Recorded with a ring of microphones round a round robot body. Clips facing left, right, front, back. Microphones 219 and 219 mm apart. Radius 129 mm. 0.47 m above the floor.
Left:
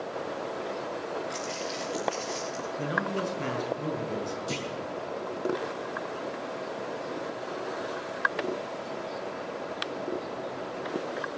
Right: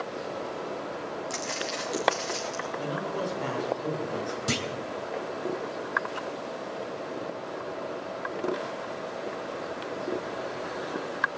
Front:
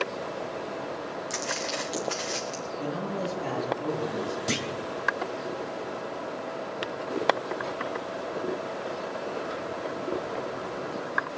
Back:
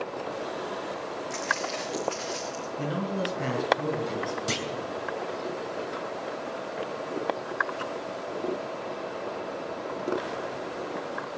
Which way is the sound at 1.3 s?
45° right.